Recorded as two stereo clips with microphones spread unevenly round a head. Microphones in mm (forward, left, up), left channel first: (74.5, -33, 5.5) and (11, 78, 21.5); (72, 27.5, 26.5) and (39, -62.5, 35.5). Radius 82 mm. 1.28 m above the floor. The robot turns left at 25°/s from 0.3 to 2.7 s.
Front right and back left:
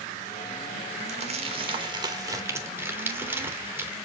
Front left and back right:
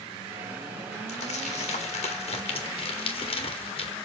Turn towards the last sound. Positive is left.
turn(degrees=50)